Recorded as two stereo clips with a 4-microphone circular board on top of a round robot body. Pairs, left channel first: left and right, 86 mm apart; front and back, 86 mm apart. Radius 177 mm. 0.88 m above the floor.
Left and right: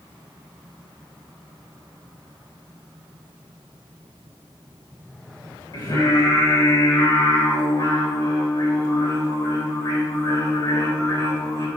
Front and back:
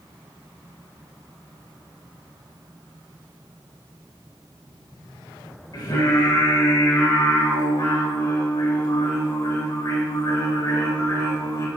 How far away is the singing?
About 3.5 m.